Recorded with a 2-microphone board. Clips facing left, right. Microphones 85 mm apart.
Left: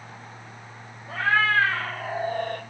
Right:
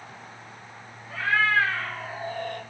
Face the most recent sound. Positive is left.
turn(degrees=45)  # may be behind; listen again after turning